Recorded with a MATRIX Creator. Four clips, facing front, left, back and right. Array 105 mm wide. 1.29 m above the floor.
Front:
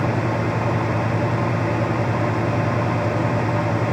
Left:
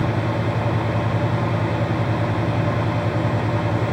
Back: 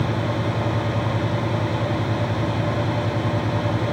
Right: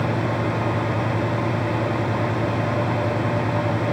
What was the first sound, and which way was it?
Only background noise.